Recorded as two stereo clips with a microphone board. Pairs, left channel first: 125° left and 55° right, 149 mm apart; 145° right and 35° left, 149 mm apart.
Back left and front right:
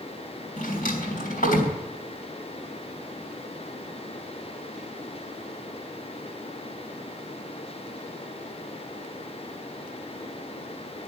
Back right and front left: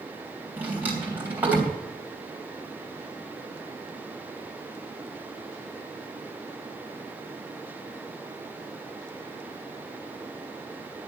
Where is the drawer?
115° left, 3 m.